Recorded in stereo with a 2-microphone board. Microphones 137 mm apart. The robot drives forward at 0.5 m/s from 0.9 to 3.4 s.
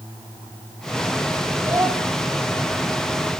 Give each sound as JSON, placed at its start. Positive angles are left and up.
{"t": 1.6, "sound": "a child speaking", "side_deg": -25, "distance_m": 3.0}